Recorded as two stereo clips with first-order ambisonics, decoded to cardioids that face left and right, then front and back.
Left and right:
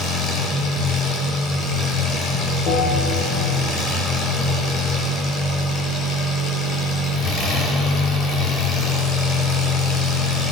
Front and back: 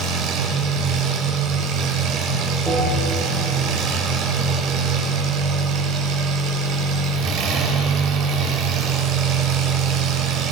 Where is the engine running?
145° left, 5.5 m.